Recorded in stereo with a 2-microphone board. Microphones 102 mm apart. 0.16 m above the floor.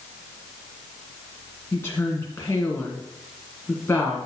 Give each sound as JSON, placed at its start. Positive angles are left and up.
{"t": 1.7, "sound": "a woman speaking", "side_deg": 25, "distance_m": 1.7}